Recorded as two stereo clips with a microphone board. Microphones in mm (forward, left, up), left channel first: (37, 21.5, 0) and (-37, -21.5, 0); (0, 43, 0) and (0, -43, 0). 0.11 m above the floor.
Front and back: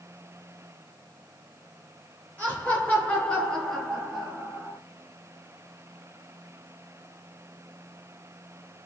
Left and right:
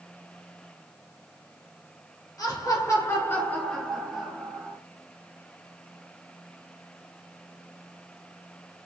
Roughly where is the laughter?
Left.